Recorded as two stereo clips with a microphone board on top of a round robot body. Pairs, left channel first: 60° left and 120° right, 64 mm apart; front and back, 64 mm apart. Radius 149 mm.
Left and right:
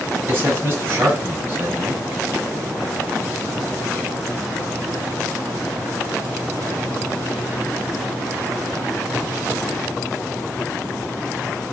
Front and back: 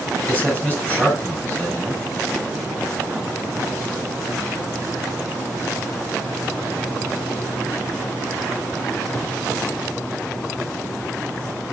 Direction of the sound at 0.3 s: 70° right.